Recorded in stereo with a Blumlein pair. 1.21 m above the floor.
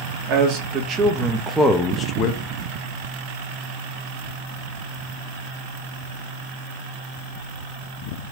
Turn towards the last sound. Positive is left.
turn(degrees=50)